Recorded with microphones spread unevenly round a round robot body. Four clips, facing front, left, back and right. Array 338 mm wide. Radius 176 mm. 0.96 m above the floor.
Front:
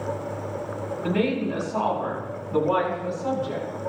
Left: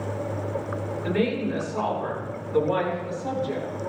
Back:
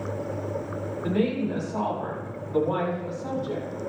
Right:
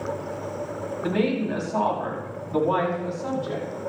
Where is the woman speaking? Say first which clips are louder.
Right 1 dB, front 1 dB; 60° right, 8 m; by 3.6 s 55° right, 9.5 m.